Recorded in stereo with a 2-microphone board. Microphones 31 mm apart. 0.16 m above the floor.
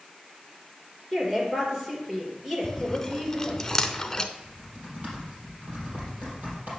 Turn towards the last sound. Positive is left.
turn(degrees=-50)  # may be behind; listen again after turning